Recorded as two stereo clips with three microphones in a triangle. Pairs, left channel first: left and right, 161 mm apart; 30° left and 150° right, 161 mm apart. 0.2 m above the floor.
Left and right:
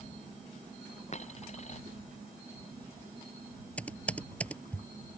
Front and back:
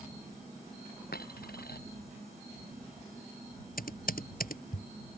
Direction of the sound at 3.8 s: 10° left.